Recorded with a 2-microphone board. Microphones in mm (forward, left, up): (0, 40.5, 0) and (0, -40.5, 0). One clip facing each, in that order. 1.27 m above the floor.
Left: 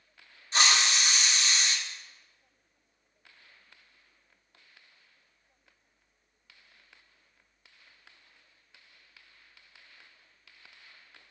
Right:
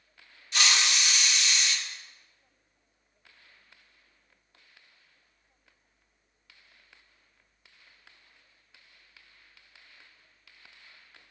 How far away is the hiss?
About 0.7 m.